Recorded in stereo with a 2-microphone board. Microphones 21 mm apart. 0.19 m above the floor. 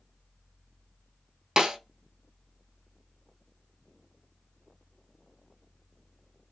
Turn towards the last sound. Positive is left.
turn(degrees=-35)  # may be behind; listen again after turning